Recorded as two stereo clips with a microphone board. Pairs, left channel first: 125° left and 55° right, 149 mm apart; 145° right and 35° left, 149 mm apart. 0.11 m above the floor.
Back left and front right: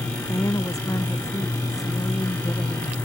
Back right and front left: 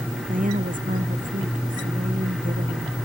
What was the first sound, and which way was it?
A woman speaking, 55° left.